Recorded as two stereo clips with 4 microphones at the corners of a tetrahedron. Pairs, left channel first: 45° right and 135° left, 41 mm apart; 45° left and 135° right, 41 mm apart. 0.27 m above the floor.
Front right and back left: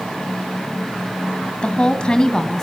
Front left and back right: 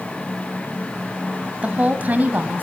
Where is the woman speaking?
95° right, 1.7 m; by 2.6 s 120° right, 2.0 m.